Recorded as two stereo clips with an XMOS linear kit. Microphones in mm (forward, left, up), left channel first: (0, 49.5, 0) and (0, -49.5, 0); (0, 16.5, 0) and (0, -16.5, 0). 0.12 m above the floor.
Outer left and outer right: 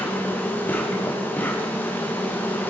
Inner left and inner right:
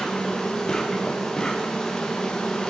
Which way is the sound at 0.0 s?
20° left (ahead or behind).